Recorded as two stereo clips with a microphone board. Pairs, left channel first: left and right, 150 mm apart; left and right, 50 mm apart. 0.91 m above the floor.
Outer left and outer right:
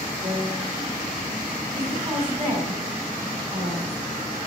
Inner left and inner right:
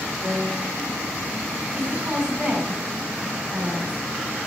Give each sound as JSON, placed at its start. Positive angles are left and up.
{"t": 0.2, "sound": "a piano", "side_deg": -75, "distance_m": 3.5}
{"t": 1.8, "sound": "a woman speaking", "side_deg": -35, "distance_m": 5.0}